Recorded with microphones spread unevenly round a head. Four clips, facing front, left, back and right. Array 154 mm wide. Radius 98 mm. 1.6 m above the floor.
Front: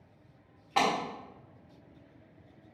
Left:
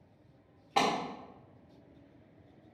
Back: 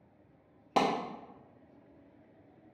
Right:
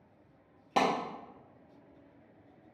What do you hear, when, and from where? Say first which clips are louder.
0.8 s a clap: right 1 dB, front 1 dB; 175° right, 1.3 m